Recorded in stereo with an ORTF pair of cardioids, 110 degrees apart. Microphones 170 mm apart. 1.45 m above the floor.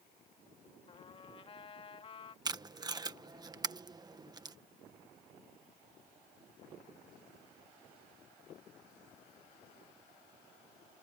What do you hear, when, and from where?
0.9 s a trumpet: 35° left
2.5 s tape being pulled: 25° right